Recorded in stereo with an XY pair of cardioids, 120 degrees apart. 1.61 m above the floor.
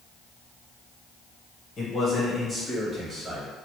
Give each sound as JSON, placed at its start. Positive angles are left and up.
{"t": 1.8, "sound": "a man speaking", "azimuth_deg": 35, "distance_m": 1.1}